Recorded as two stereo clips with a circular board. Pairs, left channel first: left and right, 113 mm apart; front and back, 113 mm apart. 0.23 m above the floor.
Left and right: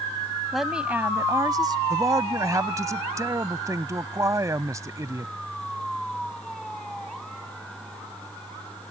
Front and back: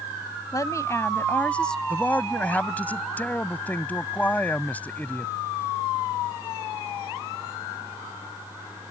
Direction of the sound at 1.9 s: 60° right.